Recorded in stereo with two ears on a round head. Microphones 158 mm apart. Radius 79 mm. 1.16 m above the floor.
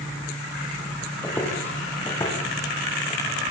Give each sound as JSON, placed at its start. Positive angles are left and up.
{"t": 1.2, "sound": "footsteps", "side_deg": 10, "distance_m": 10.0}